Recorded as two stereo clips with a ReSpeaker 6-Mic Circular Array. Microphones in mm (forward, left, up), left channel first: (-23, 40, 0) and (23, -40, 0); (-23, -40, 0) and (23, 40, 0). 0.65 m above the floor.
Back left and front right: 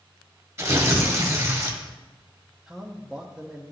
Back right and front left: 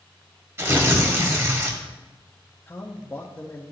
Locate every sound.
0.6 s tearing paper: straight ahead, 1.1 m
2.7 s a man speaking: 140° right, 0.6 m